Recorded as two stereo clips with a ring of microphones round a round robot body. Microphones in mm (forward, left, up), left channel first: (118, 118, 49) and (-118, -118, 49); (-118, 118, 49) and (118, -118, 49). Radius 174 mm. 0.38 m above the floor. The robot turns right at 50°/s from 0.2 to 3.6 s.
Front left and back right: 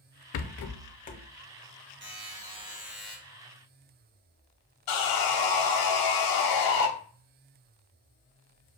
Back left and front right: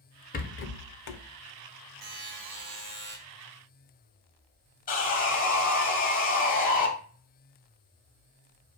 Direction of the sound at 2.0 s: 95° right.